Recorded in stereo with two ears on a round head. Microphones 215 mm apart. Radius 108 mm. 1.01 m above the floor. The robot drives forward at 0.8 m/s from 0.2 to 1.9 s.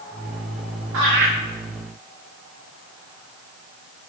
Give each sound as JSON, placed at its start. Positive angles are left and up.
{"t": 0.9, "sound": "laughter", "side_deg": -65, "distance_m": 2.0}